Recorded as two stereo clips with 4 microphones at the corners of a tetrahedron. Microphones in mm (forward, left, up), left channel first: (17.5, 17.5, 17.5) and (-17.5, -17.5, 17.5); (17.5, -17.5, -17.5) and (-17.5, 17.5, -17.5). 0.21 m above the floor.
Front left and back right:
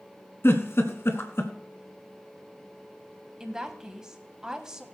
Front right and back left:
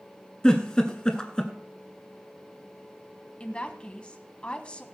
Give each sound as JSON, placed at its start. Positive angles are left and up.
{"t": 0.4, "sound": "a giggle", "azimuth_deg": 25, "distance_m": 1.5}
{"t": 3.4, "sound": "a woman speaking", "azimuth_deg": -75, "distance_m": 1.3}